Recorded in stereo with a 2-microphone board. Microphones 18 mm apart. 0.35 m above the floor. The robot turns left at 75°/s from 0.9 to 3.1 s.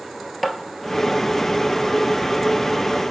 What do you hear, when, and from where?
0.4 s tapping: centre (ahead or behind), 1.1 m